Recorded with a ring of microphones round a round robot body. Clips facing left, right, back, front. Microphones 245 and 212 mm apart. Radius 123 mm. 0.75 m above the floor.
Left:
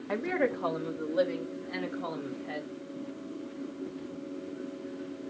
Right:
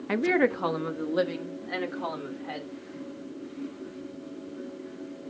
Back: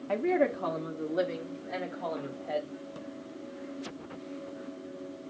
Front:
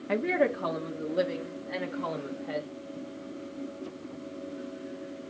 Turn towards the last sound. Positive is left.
turn(degrees=-90)